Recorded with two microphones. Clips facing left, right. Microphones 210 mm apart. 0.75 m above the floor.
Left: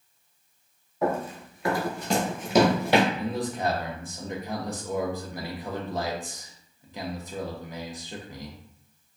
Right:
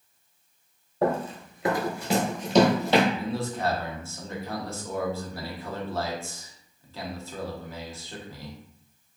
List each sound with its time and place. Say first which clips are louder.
1.0 s running footsteps: right 2 dB; 30° right (ahead or behind), 1.0 m; by 3.0 s 15° left (ahead or behind), 1.2 m
3.1 s a man speaking: even; 15° left (ahead or behind), 0.6 m